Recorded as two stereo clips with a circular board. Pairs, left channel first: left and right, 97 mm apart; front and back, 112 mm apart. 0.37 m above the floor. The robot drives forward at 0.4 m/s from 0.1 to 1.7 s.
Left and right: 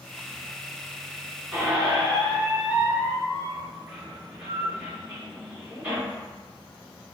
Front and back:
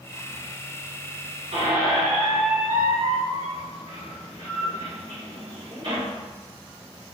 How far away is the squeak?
About 1.1 m.